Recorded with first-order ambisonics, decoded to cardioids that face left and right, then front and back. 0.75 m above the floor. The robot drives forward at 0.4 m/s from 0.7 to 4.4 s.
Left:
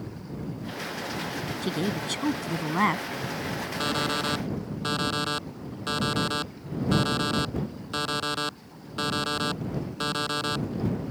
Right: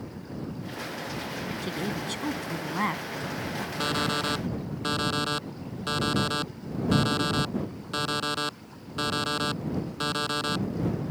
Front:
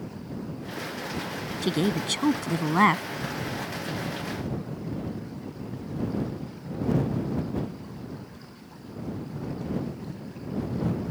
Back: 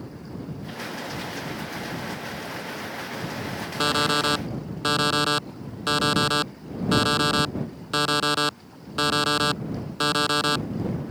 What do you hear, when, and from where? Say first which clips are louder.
1.6 s a woman speaking: left 4 dB, front 5 dB; 15° left
3.8 s an alarm clock: even, back 12 dB; straight behind